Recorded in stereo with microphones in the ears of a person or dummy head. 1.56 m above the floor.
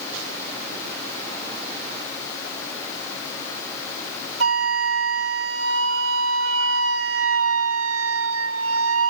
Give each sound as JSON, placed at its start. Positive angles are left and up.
{"t": 4.4, "sound": "a flute", "side_deg": -85, "distance_m": 0.9}